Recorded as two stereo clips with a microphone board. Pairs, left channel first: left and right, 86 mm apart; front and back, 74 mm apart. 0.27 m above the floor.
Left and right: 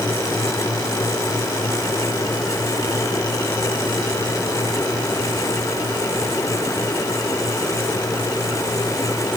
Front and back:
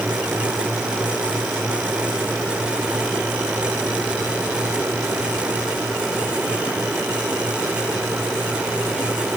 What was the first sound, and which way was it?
Only background noise.